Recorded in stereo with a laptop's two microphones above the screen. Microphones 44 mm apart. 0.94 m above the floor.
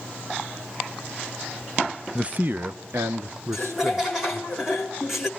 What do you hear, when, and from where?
2.1 s a man speaking: 20° right (ahead or behind), 0.8 m; by 4.5 s 85° right, 3.5 m
3.5 s laughter: 10° right (ahead or behind), 1.6 m